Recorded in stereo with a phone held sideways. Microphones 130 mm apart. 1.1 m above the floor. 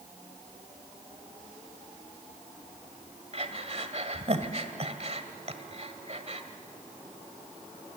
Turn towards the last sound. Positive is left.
turn(degrees=-50)  # may be behind; listen again after turning